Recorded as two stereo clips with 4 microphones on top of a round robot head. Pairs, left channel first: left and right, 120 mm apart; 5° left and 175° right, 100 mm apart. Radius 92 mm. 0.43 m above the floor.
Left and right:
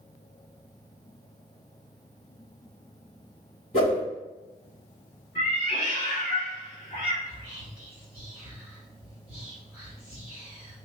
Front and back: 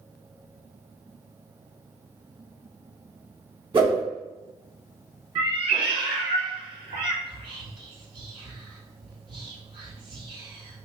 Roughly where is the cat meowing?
Behind left.